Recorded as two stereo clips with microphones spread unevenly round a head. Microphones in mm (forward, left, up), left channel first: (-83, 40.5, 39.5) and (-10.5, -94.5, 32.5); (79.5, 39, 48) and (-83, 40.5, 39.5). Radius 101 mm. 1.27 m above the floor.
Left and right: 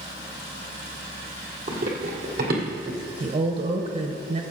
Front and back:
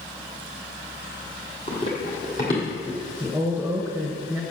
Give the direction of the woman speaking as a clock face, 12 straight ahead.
3 o'clock.